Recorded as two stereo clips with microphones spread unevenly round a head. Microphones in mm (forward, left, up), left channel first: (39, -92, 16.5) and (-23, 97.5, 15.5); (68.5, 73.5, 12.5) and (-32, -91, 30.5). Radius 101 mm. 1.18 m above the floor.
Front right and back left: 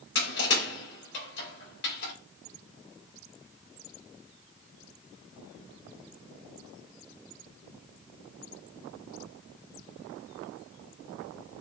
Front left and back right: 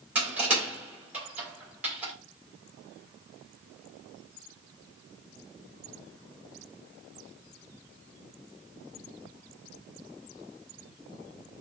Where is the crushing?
40° right, 2.5 m.